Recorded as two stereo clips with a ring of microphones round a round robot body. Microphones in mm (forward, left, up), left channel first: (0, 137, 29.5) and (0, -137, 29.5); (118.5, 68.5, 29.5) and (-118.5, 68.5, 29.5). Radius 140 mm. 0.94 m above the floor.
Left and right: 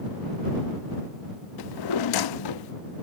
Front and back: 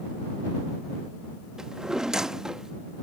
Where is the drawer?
95° left.